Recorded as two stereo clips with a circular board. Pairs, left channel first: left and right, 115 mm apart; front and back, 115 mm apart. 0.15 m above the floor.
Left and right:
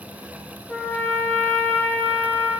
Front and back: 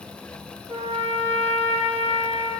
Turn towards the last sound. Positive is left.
turn(degrees=160)